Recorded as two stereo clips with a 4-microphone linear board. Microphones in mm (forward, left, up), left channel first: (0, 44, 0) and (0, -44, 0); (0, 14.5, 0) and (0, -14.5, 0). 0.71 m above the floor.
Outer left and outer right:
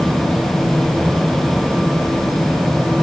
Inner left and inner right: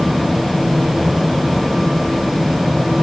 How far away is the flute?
I don't hear a flute.